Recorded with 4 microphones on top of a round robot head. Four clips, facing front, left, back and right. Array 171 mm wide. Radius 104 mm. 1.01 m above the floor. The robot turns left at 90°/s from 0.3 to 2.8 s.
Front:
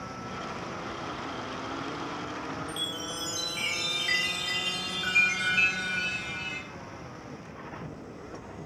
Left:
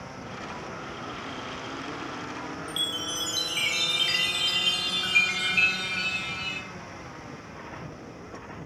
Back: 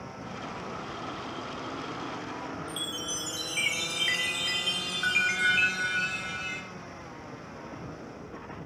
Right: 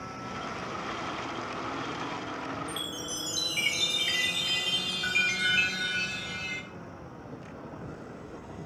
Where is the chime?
175° left, 1.9 m; by 6.6 s 165° left, 1.9 m.